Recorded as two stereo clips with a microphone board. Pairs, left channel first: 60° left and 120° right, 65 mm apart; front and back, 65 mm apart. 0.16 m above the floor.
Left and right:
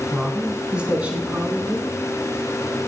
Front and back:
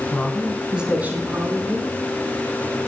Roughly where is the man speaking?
Ahead right.